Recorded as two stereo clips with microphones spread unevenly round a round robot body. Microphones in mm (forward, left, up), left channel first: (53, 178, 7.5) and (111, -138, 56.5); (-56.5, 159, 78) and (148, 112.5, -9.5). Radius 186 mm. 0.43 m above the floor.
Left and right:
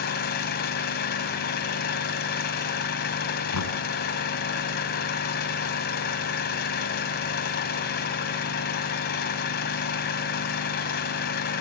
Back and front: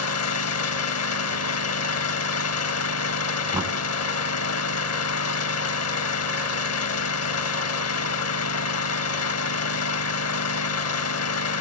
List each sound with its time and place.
0.0 s an engine running: 165° left, 1.8 m
3.5 s knocking: 65° left, 4 m